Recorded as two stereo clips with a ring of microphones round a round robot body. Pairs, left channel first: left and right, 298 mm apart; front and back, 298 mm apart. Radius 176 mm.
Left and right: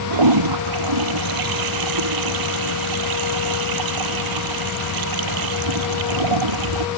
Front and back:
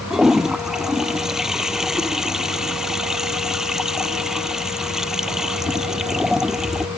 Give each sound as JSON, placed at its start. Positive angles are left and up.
{"t": 0.1, "sound": "a toilet flushing", "azimuth_deg": -90}